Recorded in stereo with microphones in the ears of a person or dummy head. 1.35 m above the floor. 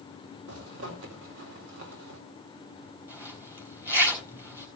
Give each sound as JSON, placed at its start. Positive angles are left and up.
{"t": 0.5, "sound": "a zipper", "side_deg": -75, "distance_m": 3.0}
{"t": 3.1, "sound": "a zipper", "side_deg": -15, "distance_m": 4.0}